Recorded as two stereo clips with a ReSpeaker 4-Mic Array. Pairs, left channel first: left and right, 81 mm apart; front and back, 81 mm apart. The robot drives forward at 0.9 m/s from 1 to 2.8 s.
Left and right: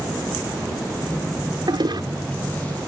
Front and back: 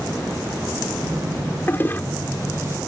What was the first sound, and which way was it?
A toilet flushing, 65° right.